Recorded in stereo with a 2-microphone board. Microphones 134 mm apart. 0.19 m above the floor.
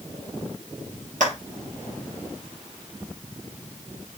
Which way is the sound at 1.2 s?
65° right (ahead or behind).